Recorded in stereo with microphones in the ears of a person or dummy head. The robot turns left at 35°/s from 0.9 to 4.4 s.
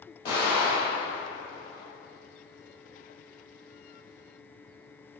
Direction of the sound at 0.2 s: 35° left (ahead or behind).